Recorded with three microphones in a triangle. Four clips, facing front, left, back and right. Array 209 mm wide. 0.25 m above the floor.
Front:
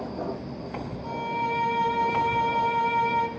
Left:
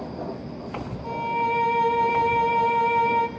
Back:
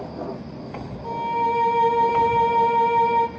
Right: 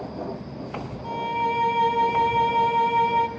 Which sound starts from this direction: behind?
A violin, at 1.0 s.